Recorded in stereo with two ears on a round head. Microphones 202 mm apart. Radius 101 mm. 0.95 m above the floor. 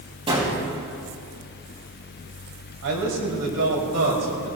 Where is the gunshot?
25° right (ahead or behind), 6 m.